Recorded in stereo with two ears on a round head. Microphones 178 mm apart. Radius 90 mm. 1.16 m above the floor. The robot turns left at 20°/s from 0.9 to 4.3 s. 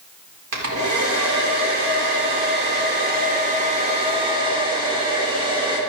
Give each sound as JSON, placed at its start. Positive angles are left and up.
{"t": 0.5, "sound": "a hair dryer", "azimuth_deg": -85, "distance_m": 4.0}